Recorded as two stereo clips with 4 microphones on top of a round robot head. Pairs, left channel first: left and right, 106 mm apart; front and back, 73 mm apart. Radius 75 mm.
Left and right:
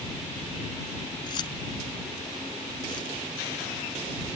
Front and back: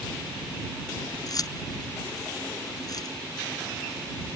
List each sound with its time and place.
1.3 s keys jangling: 30° left